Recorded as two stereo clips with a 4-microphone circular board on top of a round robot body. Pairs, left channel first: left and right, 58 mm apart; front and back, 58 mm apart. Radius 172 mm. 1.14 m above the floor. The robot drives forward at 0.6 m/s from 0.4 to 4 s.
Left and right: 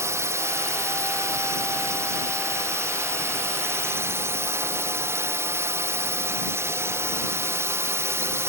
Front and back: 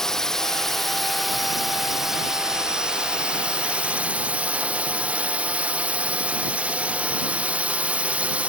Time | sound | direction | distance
0.0 | a drone | 80° right | ?